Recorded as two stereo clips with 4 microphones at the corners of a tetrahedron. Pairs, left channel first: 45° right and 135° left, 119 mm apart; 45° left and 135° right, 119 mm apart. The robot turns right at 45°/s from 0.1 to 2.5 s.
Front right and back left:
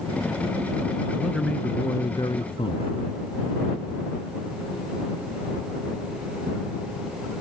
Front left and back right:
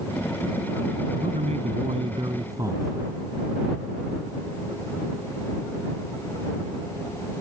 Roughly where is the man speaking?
Behind right.